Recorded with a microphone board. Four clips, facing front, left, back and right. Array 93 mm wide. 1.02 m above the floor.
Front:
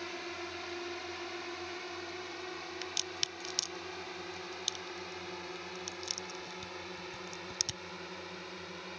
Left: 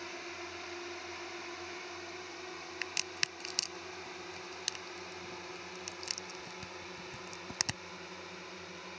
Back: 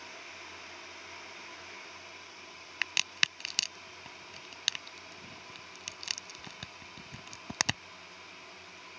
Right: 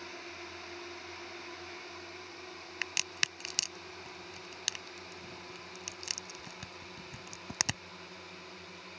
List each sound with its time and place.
0.0 s a drone: 10° left; by 9.0 s 15° left
2.8 s a crack: 170° right